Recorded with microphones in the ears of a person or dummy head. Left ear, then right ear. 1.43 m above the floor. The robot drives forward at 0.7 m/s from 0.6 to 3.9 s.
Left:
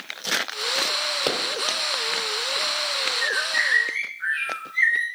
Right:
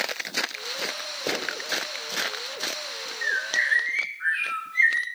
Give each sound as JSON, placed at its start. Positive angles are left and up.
{"t": 1.3, "sound": "a pop", "side_deg": 55, "distance_m": 2.0}
{"t": 3.2, "sound": "a bird", "side_deg": -15, "distance_m": 2.5}